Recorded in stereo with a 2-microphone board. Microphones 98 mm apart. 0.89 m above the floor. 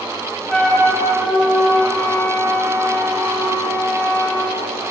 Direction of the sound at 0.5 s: 5° left (ahead or behind).